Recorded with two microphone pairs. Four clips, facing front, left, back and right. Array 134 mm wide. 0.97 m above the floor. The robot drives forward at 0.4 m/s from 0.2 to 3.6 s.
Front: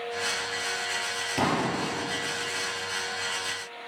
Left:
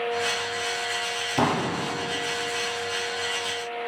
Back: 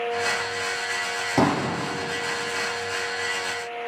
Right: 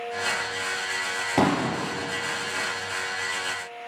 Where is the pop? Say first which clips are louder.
Right 2 dB, back 5 dB; 140° right, 3 m.